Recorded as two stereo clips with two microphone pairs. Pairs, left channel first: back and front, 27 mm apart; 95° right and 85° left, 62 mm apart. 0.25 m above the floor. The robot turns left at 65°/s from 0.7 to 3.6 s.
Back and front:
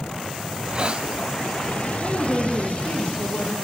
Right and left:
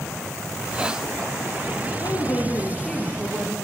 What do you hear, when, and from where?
0.5 s a hiss: 25° left, 0.7 m; by 1.1 s straight ahead, 0.7 m
2.0 s a woman speaking: 115° right, 5.5 m; by 3.5 s 145° left, 5.5 m